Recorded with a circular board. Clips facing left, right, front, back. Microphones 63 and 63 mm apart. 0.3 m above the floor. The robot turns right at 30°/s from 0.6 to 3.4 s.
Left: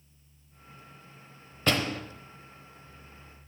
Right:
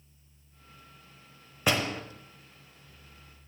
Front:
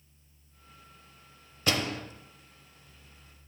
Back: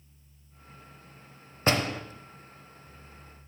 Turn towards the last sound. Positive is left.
turn(degrees=-115)